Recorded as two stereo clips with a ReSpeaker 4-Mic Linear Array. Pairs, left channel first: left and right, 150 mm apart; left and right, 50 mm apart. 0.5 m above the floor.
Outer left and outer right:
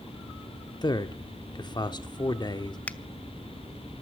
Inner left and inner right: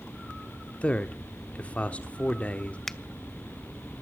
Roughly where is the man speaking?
Left.